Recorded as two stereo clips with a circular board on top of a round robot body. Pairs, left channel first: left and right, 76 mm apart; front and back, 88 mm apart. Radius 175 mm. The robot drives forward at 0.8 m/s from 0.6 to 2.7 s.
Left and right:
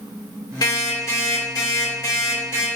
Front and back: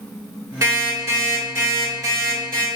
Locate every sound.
0.6 s an alarm clock: 125° left, 3 m; by 2.7 s 145° left, 4.5 m